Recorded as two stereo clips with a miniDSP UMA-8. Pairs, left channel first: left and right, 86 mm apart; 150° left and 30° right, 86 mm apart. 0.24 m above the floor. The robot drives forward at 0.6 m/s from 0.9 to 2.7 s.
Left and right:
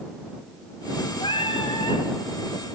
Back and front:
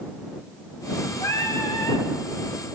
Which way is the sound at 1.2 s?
100° left.